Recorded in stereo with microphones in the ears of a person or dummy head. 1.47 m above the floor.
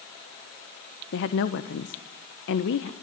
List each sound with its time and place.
1.1 s a woman speaking: 60° left (ahead or behind), 1.2 m